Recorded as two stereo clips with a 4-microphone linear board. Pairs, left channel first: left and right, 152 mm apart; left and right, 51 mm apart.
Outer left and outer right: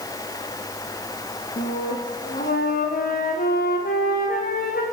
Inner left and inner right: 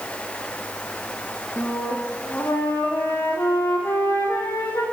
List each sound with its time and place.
1.6 s a flute: 75° left (ahead or behind), 7.5 m